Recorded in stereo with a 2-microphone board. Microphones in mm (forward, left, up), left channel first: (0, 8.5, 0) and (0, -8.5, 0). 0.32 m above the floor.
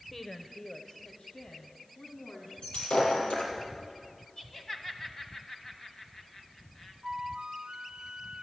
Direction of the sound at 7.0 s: 65° right (ahead or behind).